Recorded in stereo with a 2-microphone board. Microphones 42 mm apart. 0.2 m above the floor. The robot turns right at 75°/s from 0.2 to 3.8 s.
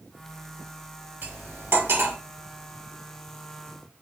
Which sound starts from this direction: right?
Cutlery clinking, at 1.2 s.